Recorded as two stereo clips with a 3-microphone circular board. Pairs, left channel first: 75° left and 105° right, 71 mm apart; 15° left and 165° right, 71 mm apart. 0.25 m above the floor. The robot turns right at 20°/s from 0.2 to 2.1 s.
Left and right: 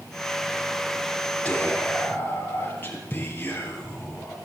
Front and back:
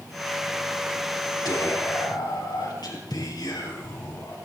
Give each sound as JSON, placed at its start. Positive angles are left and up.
{"t": 1.4, "sound": "whispering", "azimuth_deg": 5, "distance_m": 5.5}